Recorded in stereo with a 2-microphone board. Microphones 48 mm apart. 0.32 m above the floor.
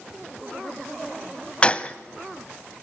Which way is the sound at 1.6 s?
25° left (ahead or behind).